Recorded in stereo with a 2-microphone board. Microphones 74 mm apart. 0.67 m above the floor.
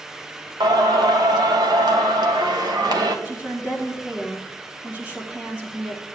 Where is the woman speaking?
20° right (ahead or behind), 1.3 m.